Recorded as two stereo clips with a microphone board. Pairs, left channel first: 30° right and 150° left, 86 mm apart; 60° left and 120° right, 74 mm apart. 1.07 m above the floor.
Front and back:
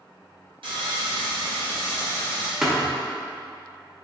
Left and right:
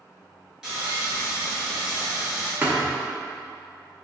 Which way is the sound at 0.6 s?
160° left.